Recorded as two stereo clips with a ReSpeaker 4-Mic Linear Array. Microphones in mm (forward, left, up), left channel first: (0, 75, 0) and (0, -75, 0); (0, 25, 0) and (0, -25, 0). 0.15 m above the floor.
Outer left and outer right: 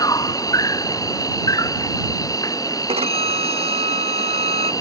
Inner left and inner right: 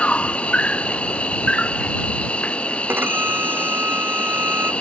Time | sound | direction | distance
0.0 | an insect | 25° left (ahead or behind) | ?
2.9 | a violin | 45° right (ahead or behind) | ?